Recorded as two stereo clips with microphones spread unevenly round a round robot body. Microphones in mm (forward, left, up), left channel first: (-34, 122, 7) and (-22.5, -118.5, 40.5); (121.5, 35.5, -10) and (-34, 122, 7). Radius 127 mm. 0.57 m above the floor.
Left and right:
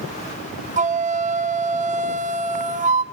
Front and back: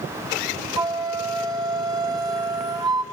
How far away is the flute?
About 1.4 m.